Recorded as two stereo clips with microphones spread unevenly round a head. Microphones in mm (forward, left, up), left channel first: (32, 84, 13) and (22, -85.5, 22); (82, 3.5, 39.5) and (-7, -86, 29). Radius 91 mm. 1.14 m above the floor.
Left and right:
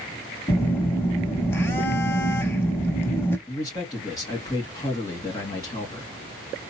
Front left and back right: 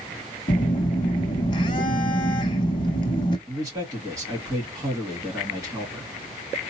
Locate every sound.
0.5 s a phone buzzing: 15° left, 0.9 m
3.5 s a man speaking: 155° left, 2.0 m